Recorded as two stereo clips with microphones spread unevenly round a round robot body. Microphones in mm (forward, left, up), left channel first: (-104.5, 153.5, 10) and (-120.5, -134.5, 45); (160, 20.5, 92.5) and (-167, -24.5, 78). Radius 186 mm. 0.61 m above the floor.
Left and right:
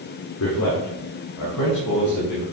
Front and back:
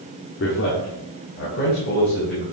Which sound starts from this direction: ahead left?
A man speaking, at 0.4 s.